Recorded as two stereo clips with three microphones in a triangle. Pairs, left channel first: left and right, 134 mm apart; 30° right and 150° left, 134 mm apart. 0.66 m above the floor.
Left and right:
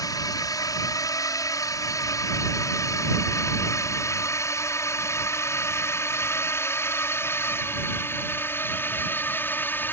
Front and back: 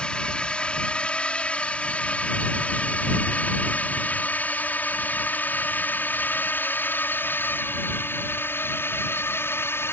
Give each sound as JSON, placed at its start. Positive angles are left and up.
{"t": 0.0, "sound": "a drone", "azimuth_deg": 50}